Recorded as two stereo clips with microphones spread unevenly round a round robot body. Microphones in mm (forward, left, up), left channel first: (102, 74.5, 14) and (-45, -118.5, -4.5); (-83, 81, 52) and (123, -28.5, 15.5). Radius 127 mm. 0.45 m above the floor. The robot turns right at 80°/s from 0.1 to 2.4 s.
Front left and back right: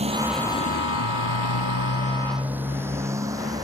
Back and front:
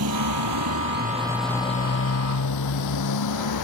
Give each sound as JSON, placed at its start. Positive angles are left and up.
{"t": 0.0, "sound": "a motorcycle", "azimuth_deg": -60}